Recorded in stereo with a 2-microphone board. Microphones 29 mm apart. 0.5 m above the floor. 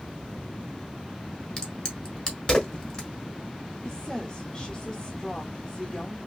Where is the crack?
35° left (ahead or behind), 1.1 m.